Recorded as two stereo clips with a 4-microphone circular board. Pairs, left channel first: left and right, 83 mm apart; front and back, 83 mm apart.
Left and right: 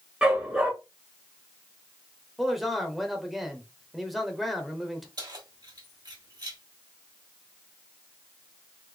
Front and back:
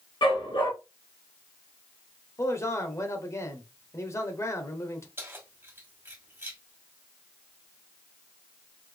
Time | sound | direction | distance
0.2 | a dog barking | 10° right | 1.8 m
2.4 | a man speaking | straight ahead | 0.9 m
5.2 | keys jangling | 120° right | 1.6 m